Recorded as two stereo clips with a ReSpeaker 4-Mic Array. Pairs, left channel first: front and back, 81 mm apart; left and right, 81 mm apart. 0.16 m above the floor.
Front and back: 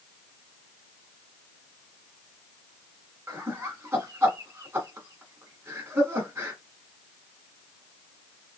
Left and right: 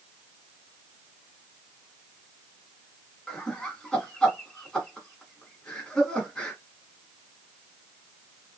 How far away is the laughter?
About 1.1 m.